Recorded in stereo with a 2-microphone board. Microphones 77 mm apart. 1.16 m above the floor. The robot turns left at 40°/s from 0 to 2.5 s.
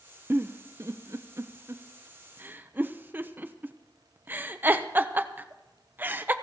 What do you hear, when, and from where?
0.3 s a giggle: 30° right (ahead or behind), 0.8 m; by 6.3 s 25° right (ahead or behind), 0.8 m